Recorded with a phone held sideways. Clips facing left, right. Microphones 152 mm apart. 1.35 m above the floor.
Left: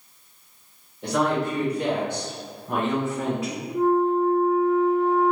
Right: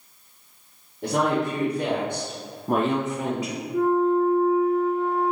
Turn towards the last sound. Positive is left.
turn(degrees=-80)